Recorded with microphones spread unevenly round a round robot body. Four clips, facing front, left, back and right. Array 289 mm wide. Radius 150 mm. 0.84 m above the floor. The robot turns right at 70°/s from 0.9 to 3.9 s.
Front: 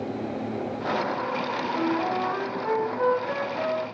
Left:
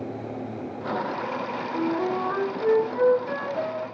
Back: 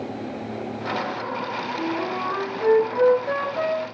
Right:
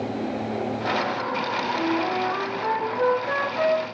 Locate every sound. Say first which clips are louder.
1.7 s a flute: left 1 dB, front 2 dB; 80° left, 2.5 m; by 3.9 s 130° right, 2.5 m